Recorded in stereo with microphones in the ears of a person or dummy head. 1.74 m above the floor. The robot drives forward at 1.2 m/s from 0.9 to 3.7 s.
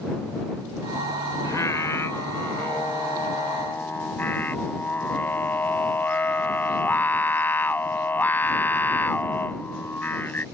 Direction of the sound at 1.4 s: 10° left (ahead or behind).